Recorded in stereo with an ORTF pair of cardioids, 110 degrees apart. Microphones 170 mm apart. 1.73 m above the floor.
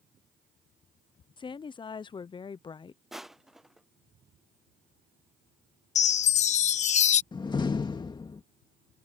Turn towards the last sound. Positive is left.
turn(degrees=25)